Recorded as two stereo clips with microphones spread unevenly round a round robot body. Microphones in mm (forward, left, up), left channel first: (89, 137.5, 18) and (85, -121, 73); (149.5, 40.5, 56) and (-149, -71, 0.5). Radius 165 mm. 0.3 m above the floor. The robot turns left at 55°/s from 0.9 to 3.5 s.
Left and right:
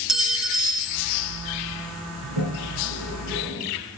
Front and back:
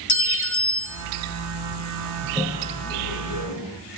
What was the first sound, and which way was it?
A clink, 10° left.